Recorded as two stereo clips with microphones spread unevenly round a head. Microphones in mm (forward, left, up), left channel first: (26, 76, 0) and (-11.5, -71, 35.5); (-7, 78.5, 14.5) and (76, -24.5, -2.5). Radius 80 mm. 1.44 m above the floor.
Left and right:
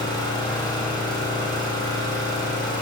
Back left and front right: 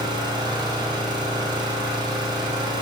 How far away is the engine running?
About 3 m.